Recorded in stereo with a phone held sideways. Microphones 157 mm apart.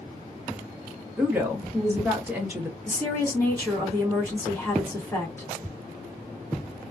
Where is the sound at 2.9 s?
15° left (ahead or behind), 1.5 m.